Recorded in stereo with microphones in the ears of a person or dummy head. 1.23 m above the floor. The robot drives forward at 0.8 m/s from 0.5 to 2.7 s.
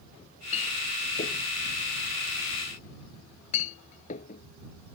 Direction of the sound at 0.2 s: 35° left (ahead or behind).